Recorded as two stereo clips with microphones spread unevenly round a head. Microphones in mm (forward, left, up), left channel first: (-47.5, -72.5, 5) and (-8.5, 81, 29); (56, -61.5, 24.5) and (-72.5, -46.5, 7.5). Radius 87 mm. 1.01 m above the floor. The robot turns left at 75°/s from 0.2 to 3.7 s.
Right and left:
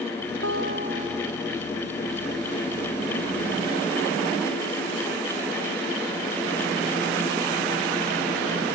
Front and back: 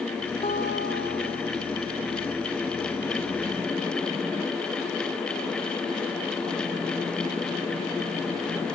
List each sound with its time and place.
0.4 s a guitar: 55° left; by 1.5 s 25° right